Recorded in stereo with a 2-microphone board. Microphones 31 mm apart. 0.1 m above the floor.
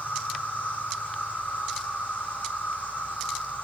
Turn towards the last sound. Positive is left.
turn(degrees=70)  # may be behind; listen again after turning